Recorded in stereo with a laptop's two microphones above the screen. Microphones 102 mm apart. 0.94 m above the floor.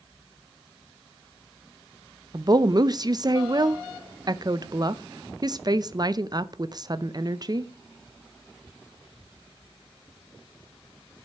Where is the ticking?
I don't hear ticking.